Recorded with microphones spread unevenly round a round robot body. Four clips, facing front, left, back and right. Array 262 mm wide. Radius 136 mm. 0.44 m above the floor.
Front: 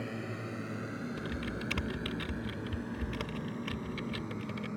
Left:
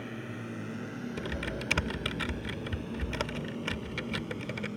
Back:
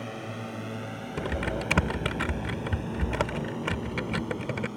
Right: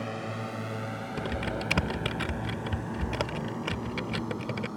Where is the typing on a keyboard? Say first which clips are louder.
Right 6 dB, back 7 dB; 165° right.